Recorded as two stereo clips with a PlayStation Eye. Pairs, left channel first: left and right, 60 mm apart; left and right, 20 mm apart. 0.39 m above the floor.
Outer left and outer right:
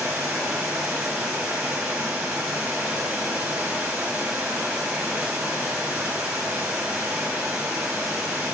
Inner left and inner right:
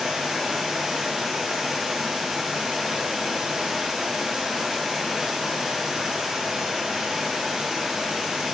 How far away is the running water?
About 2.5 m.